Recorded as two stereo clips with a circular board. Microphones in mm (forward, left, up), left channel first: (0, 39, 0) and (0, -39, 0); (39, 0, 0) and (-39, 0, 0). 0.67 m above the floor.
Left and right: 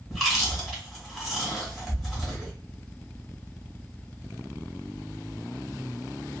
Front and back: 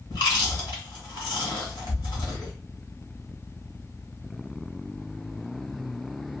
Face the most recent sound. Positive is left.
turn(degrees=-5)